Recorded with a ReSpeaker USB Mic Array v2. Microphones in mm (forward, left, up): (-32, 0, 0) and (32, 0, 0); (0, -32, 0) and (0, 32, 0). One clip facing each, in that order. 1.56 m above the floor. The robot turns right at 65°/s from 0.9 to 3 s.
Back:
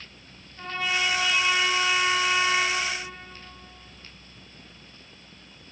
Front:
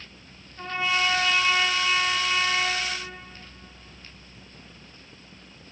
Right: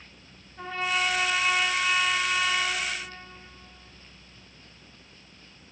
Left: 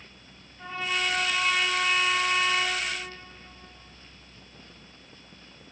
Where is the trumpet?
75° right, 3 m; by 2.8 s 50° left, 3 m.